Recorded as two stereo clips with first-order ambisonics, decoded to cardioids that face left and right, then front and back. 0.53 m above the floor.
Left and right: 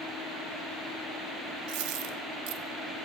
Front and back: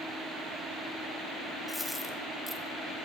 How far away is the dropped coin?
About 1.8 m.